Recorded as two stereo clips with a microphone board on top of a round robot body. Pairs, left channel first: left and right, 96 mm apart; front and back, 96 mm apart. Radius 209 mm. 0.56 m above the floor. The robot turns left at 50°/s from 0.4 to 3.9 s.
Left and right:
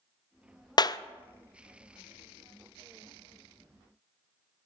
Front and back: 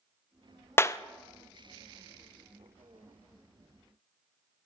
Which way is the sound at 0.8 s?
60° left.